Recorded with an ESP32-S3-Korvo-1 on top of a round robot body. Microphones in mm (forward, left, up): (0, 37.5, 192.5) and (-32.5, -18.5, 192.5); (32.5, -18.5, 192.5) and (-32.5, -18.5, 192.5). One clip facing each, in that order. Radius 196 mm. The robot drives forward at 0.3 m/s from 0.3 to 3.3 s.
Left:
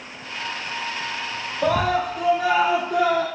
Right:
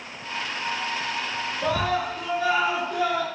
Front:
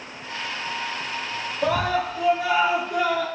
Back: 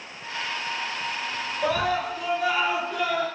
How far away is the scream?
About 1.1 m.